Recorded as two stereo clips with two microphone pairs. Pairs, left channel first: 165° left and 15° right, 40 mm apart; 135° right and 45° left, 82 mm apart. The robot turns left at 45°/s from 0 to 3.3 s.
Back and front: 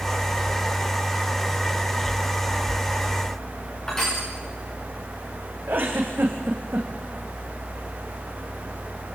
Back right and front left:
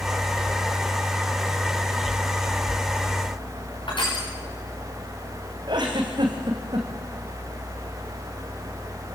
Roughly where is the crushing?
Behind right.